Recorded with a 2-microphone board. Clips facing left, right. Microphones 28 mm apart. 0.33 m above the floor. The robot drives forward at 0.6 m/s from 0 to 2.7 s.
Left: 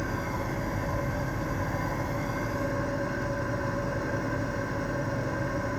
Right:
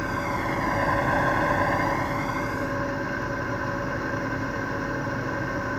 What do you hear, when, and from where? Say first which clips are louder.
0.0 s an engine running: right 5 dB; 35° right (ahead or behind), 0.9 m; by 5.8 s 30° right (ahead or behind), 1.0 m